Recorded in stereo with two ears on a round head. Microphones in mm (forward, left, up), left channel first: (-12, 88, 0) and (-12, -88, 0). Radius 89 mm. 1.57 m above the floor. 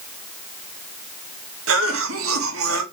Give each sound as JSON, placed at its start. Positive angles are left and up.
{"t": 1.7, "sound": "a cough", "side_deg": -80, "distance_m": 2.5}